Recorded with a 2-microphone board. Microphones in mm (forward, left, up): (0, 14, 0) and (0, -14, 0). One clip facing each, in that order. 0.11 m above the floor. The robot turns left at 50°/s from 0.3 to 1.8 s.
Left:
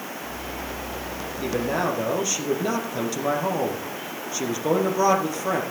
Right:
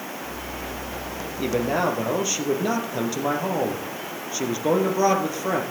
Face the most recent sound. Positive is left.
turn(degrees=-5)  # may be behind; listen again after turning